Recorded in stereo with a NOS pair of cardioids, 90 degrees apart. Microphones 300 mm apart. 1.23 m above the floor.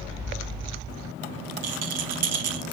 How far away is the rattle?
About 0.7 m.